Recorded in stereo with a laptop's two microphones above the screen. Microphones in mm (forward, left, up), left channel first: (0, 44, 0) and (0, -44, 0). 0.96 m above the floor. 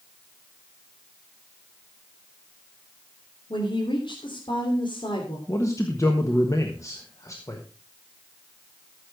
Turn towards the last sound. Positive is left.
turn(degrees=35)  # may be behind; listen again after turning